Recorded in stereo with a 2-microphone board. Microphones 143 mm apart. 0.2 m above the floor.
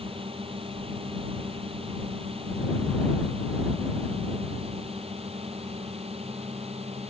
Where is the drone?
40° right (ahead or behind); by 7.1 s 45° right (ahead or behind).